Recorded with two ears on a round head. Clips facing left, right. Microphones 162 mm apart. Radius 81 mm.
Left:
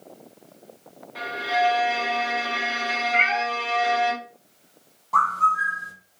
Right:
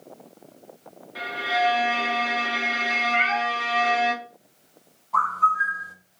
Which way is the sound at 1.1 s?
5° right (ahead or behind).